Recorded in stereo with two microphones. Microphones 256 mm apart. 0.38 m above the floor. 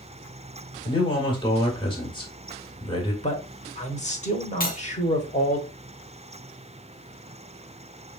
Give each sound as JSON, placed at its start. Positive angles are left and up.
{"t": 0.8, "sound": "a man speaking", "side_deg": 20, "distance_m": 1.5}
{"t": 3.2, "sound": "a man speaking", "side_deg": 30, "distance_m": 1.1}
{"t": 4.6, "sound": "cutlery clinking", "side_deg": 35, "distance_m": 0.7}